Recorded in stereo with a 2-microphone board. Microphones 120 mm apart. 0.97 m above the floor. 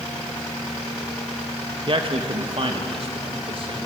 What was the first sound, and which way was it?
A man speaking, 50° right (ahead or behind).